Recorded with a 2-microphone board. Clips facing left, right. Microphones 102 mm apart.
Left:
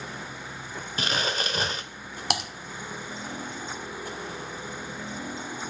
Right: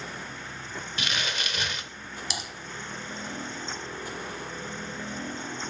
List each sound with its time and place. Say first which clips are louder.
1.0 s crumpling: left 5 dB; 35° left (ahead or behind), 1.0 m
2.3 s typing on a keyboard: left 10 dB; 60° left (ahead or behind), 1.3 m